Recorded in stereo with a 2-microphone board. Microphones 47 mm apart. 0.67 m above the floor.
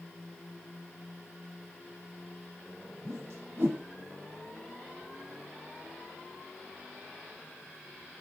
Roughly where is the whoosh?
Right.